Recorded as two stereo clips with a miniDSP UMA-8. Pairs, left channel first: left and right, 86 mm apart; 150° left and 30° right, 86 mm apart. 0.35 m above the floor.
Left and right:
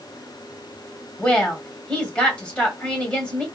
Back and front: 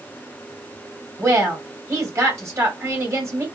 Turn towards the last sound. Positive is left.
turn(degrees=15)